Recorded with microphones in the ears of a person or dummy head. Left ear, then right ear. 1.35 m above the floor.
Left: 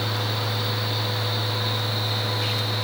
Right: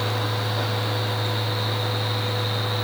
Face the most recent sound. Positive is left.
turn(degrees=-35)  # may be behind; listen again after turning